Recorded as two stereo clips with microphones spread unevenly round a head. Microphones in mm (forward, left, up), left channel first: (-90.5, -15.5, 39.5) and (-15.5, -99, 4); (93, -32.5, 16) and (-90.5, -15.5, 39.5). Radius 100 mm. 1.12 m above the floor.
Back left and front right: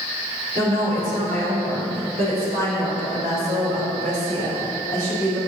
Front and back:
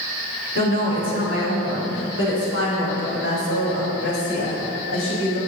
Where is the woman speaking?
5° right, 3.5 m; by 5.4 s 20° right, 6 m.